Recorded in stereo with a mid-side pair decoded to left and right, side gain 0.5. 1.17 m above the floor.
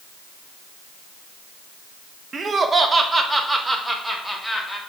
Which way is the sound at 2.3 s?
40° right.